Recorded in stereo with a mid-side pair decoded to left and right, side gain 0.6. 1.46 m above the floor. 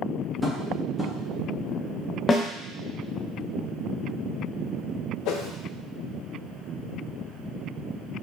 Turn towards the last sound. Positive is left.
turn(degrees=70)